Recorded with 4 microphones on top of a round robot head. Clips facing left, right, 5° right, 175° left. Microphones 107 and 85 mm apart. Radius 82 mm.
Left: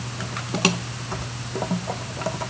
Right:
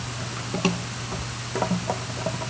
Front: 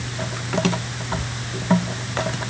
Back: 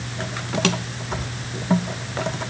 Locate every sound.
Only background noise.